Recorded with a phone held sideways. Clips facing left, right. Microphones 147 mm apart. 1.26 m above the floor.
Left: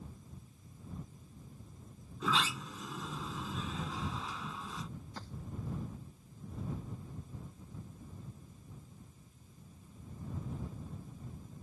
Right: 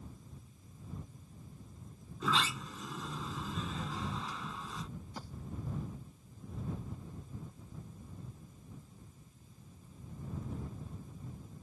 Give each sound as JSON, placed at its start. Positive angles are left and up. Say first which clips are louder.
{"t": 2.2, "sound": "a sliding door", "louder": "even", "side_deg": 0}
{"t": 5.2, "sound": "a thud", "louder": "right 1 dB", "side_deg": -10}